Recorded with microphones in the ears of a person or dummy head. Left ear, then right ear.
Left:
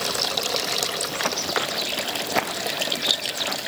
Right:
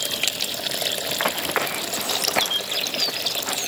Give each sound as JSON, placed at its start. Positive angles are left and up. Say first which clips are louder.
{"t": 1.1, "sound": "running footsteps", "louder": "right 1 dB", "side_deg": -20}